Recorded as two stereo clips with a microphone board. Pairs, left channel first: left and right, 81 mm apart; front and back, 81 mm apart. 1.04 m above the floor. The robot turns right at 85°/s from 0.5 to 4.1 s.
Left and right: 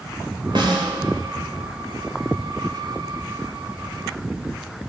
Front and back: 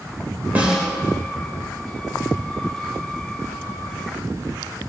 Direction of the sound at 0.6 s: 110° right.